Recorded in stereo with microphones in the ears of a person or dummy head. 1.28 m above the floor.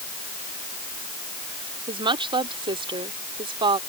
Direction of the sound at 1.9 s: 20° right (ahead or behind).